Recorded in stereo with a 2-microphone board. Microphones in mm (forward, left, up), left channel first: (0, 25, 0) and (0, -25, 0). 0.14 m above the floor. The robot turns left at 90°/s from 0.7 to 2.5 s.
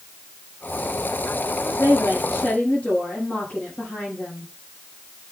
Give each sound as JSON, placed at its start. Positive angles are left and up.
{"t": 1.8, "sound": "a woman speaking", "azimuth_deg": 95, "distance_m": 5.5}